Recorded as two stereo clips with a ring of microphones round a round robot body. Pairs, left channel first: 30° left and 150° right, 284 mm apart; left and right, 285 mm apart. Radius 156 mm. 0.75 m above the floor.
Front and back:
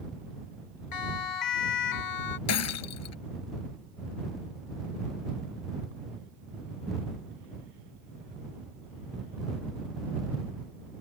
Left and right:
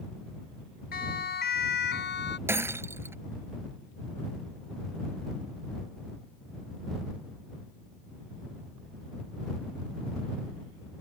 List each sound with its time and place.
0.9 s a siren: 30° left; by 2.4 s 35° left
2.5 s breaking glass: 10° right